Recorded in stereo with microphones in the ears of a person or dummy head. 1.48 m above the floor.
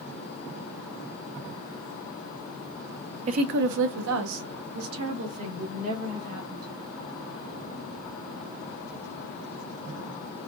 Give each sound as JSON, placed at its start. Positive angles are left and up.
{"t": 3.3, "sound": "a woman speaking", "side_deg": -35, "distance_m": 0.5}